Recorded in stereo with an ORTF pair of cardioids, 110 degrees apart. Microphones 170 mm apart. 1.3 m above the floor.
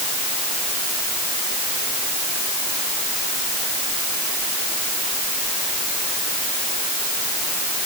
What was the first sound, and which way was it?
Only background noise.